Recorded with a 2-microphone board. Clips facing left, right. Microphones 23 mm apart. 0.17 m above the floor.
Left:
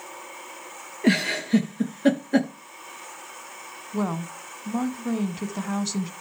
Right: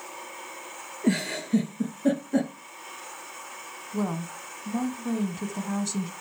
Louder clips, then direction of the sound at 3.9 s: Left 2 dB; 25° left (ahead or behind).